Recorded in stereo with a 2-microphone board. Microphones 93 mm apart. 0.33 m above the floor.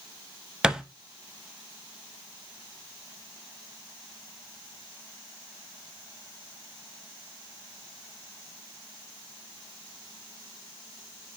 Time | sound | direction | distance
0.6 | a thud | 5° right (ahead or behind) | 0.5 m